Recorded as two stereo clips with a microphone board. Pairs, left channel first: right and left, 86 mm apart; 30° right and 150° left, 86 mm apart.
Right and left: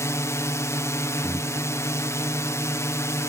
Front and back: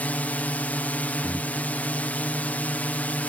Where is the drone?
85° right.